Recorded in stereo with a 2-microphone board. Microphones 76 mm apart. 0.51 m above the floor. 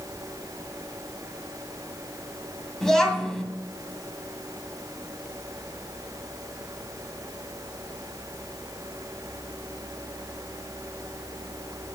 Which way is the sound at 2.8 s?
5° left (ahead or behind).